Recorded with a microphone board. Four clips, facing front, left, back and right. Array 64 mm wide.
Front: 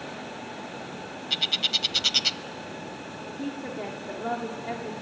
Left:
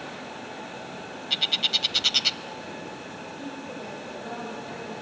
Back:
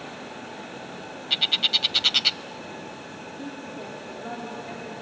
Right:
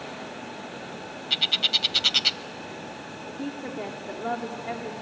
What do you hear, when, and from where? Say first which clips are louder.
1.3 s a bird: right 1 dB, back 3 dB; 165° right, 0.6 m
3.3 s a woman speaking: right 5 dB, front 4 dB; 50° right, 1.9 m